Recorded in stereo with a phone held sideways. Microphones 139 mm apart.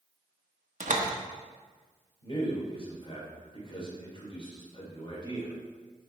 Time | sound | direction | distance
0.8 | a door slam | 65° right (ahead or behind) | 1.0 m
2.2 | a man speaking | 35° left (ahead or behind) | 2.5 m